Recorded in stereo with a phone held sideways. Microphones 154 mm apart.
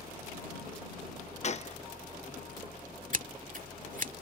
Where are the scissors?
60° right (ahead or behind).